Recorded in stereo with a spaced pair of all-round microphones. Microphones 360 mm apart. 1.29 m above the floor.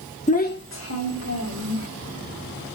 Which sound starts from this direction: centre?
A child speaking, at 0.3 s.